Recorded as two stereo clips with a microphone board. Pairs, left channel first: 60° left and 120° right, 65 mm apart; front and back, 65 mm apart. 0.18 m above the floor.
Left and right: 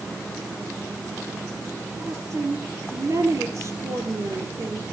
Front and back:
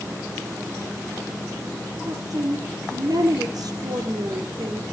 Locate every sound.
2.1 s a woman speaking: 160° right, 3.5 m